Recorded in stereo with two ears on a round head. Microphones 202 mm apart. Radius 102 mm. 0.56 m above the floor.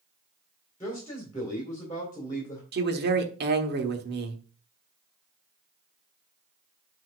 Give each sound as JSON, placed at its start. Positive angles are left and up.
{"t": 0.8, "sound": "a man speaking", "side_deg": 15, "distance_m": 2.0}
{"t": 2.7, "sound": "a man speaking", "side_deg": -50, "distance_m": 1.2}